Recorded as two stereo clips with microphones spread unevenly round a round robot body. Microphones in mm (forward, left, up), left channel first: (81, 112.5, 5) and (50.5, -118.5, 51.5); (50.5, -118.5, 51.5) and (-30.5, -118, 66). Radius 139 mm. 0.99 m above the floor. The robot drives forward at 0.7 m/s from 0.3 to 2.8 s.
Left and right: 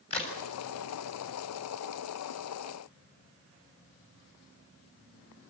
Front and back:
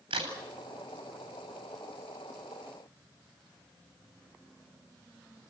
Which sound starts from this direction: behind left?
A crack, at 0.1 s.